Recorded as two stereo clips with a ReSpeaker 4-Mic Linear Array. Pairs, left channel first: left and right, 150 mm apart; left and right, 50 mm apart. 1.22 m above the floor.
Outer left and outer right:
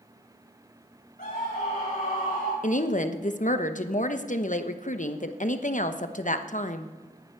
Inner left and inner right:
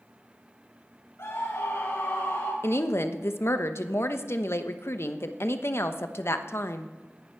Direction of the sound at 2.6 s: 55° left (ahead or behind).